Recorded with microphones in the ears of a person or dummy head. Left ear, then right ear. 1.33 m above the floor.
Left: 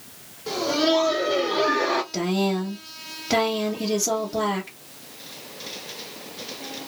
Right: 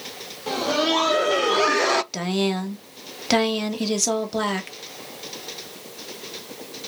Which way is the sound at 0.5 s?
20° right (ahead or behind).